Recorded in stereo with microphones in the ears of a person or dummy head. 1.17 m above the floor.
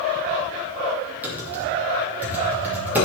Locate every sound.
1.2 s typing on a keyboard: 10° right (ahead or behind), 2.5 m